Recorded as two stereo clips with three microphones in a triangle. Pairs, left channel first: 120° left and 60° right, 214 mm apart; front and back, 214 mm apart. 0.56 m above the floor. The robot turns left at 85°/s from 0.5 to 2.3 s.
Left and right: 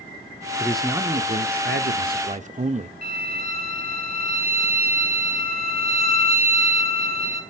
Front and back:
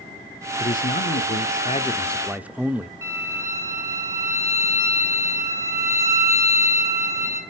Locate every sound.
0.6 s a man speaking: 45° left, 1.0 m; by 2.9 s 100° right, 1.0 m
3.0 s a violin: 105° right, 3.5 m